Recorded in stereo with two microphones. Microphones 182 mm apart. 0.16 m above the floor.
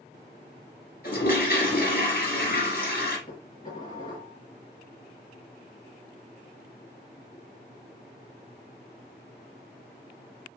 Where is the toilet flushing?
55° left (ahead or behind), 1.1 m.